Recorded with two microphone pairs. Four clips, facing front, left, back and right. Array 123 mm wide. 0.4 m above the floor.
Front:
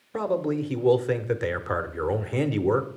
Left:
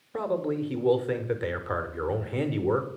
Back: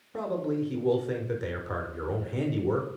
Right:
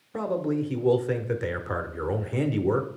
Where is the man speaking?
10° left, 0.8 m.